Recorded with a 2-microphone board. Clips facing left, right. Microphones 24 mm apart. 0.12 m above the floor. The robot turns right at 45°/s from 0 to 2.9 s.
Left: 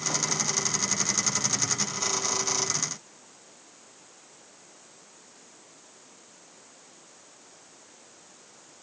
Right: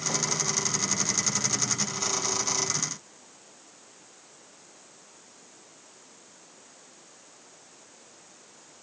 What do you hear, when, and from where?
Only background noise.